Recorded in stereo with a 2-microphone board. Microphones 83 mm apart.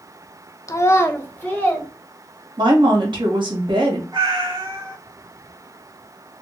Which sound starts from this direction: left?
A child speaking, at 0.7 s.